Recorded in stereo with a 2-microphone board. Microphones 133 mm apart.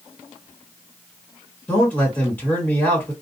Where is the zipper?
I don't hear a zipper.